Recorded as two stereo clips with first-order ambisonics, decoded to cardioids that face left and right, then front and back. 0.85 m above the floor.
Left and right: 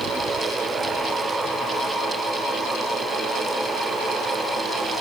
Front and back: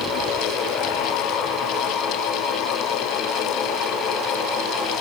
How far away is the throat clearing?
I don't hear throat clearing.